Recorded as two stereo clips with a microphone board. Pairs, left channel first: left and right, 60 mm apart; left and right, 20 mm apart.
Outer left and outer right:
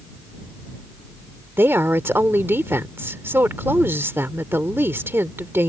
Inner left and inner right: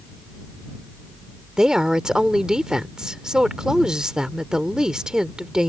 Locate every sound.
1.6 s a woman speaking: 40° right (ahead or behind)